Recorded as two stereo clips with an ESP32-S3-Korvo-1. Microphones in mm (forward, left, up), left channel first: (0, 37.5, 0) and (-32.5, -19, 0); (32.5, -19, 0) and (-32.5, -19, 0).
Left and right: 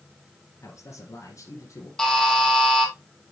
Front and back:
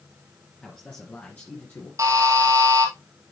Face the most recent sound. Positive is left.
turn(degrees=145)